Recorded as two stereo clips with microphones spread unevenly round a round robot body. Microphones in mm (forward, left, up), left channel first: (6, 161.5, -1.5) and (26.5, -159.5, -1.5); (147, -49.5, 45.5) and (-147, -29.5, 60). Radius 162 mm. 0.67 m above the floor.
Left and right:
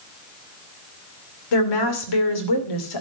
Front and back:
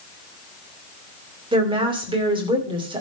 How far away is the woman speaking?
About 2.5 m.